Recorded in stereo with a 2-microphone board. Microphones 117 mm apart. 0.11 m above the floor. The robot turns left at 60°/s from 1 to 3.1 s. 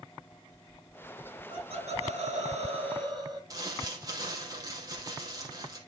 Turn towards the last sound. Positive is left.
turn(degrees=-35)  # may be behind; listen again after turning